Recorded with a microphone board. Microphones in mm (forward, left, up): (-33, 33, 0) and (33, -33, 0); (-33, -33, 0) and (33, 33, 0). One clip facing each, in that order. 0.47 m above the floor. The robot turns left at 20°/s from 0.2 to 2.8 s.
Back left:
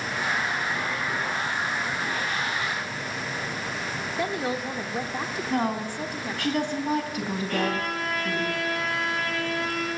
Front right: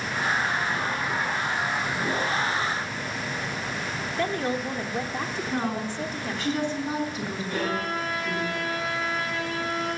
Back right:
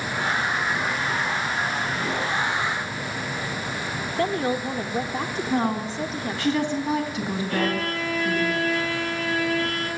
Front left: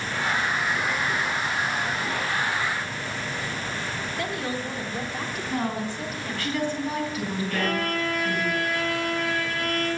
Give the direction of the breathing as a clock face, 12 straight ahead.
No breathing in this recording.